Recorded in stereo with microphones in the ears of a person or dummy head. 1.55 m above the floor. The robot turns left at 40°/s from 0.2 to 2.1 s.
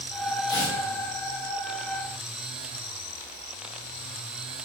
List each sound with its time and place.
0.5 s tearing paper: 25° left (ahead or behind), 0.8 m; by 0.8 s 35° left (ahead or behind), 0.8 m